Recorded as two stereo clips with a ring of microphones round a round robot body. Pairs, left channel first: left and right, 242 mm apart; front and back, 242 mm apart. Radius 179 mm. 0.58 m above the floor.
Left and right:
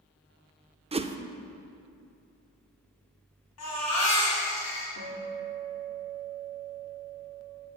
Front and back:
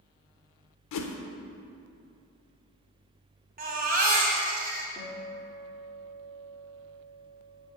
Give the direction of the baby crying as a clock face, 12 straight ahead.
8 o'clock.